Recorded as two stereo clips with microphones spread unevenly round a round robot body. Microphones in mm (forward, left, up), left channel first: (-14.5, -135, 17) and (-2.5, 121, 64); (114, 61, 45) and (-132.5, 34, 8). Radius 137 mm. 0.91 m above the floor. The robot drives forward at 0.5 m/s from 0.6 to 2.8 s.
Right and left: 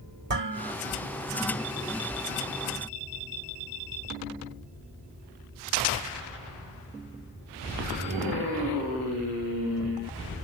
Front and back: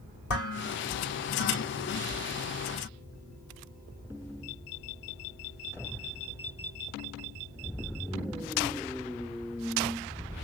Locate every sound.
0.3 s dishes clattering: 35° left, 1.9 m; by 0.7 s 40° left, 1.9 m